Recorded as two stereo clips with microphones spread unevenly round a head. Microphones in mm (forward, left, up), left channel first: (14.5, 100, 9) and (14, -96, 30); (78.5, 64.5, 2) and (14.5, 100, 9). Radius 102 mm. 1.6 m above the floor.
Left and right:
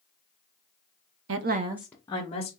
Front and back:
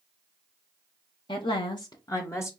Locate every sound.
1.3 s a woman speaking: 75° right, 0.6 m; by 2.5 s 30° left, 1.2 m